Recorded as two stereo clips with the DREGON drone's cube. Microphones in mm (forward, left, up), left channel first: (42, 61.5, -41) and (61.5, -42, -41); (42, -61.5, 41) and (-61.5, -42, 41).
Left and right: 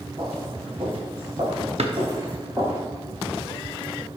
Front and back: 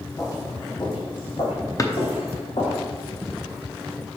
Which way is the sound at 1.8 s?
70° right.